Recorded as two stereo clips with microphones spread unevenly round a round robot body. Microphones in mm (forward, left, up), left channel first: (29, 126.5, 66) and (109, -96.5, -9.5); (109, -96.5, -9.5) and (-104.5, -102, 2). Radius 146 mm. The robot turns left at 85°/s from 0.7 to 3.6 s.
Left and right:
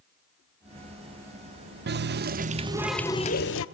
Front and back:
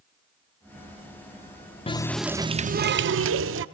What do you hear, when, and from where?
1.9 s a running tap: 60° right, 0.6 m; by 3.6 s 155° left, 0.6 m